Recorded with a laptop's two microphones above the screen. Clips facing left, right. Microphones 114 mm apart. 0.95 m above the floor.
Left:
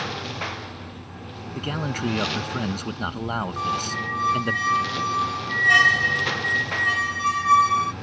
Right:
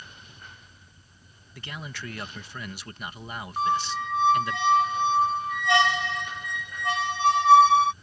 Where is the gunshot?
No gunshot in this recording.